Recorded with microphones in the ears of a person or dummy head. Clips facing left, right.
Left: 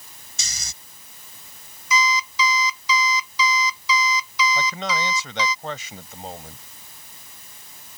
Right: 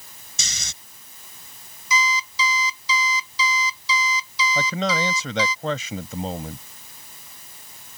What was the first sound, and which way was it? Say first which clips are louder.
Snoring: right 3 dB; 70° right (ahead or behind).